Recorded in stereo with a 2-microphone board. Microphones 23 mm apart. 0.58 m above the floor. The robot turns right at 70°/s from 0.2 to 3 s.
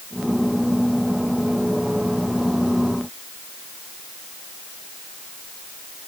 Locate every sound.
Only background noise.